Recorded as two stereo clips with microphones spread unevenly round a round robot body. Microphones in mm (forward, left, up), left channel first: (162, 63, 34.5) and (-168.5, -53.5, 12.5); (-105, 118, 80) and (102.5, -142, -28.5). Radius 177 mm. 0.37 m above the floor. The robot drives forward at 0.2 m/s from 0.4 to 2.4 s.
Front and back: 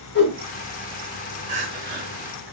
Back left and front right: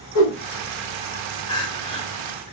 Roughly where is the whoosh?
Left.